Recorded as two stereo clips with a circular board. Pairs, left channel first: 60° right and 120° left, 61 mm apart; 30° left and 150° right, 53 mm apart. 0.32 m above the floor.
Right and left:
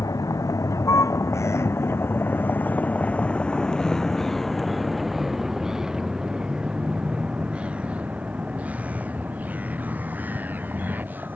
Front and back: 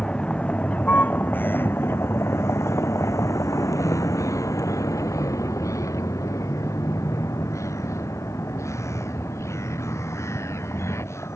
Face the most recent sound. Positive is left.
turn(degrees=60)